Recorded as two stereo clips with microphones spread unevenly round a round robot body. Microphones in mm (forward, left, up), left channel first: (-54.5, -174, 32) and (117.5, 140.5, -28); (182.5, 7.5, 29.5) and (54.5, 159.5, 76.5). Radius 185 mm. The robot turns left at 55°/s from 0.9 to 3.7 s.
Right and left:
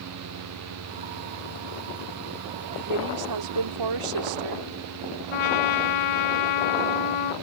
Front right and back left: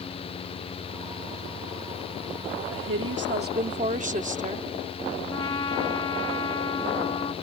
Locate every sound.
2.7 s a woman speaking: 130° left; by 4.7 s 75° left
5.3 s a trumpet: 130° right